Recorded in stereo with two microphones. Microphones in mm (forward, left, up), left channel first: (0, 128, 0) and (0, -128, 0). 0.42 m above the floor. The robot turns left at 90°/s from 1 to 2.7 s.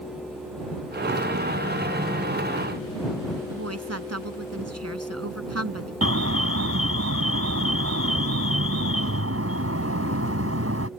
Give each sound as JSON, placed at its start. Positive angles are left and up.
{"t": 3.5, "sound": "a woman speaking", "side_deg": -75}
{"t": 6.0, "sound": "an alarm", "side_deg": -70}